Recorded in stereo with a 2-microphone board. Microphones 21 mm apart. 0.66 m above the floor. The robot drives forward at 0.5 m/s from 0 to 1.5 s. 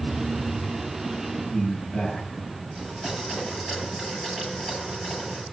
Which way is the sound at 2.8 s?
30° left (ahead or behind).